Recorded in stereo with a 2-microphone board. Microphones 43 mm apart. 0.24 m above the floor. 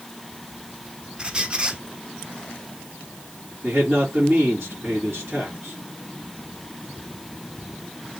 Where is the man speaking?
60° right (ahead or behind), 2.5 m.